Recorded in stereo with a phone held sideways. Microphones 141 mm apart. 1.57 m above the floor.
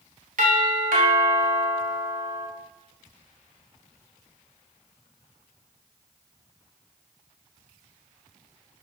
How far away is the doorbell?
About 3.5 m.